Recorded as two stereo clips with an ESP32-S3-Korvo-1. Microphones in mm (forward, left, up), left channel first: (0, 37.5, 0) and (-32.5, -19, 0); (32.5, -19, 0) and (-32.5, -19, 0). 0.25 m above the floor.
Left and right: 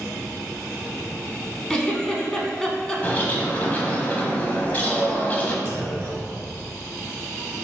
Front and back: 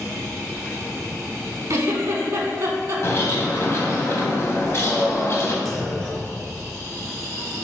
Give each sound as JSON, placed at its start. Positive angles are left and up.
{"t": 1.7, "sound": "a giggle", "azimuth_deg": 140, "distance_m": 0.6}
{"t": 3.0, "sound": "a bird", "azimuth_deg": 10, "distance_m": 0.8}
{"t": 5.7, "sound": "a clunk", "azimuth_deg": -95, "distance_m": 1.0}